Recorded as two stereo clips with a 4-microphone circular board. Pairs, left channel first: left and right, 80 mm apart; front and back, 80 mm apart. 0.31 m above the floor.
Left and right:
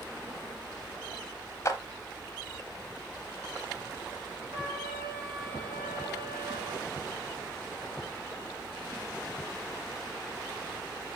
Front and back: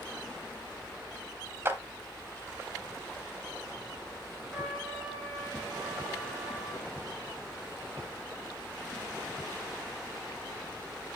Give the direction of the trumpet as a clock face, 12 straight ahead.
3 o'clock.